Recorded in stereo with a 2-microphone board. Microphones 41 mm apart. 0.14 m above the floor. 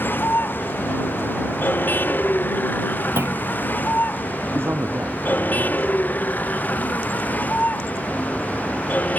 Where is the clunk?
85° right.